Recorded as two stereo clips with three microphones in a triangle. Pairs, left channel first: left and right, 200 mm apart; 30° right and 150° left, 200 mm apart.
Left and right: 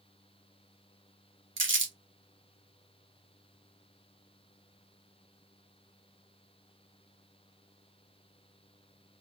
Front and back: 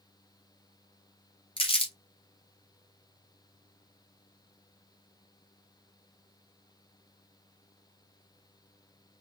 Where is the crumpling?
95° right, 0.9 m.